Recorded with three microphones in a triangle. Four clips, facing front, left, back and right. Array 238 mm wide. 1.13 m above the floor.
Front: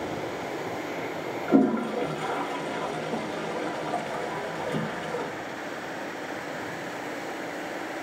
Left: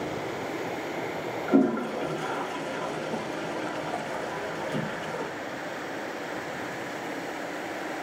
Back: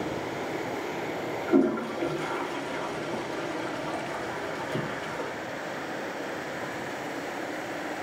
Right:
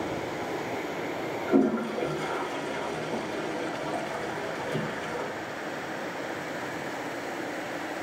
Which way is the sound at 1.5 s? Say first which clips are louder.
Left 1 dB, front 2 dB; 25° left.